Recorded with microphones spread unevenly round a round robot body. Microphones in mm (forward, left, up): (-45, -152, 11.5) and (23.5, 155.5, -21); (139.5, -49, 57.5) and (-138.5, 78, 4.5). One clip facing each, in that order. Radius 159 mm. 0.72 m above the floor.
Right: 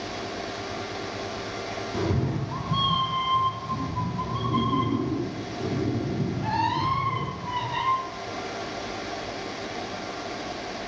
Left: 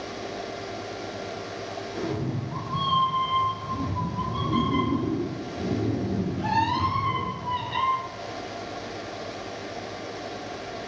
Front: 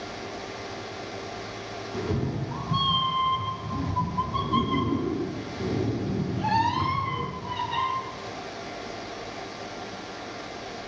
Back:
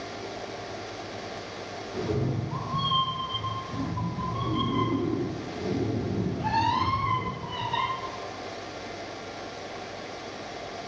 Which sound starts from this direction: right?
A cat meowing, at 1.9 s.